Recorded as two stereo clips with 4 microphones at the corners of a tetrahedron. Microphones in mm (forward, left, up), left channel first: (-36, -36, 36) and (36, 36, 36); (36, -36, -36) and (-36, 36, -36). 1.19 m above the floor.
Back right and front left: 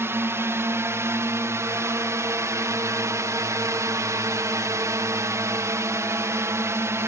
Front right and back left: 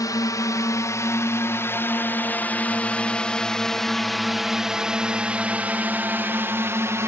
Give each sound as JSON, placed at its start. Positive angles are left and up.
{"t": 0.0, "sound": "a drone", "azimuth_deg": -10}